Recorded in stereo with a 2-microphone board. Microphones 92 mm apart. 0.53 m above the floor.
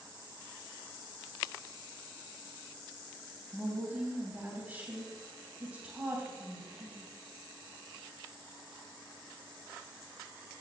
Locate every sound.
3.5 s a woman speaking: 20° right (ahead or behind), 3 m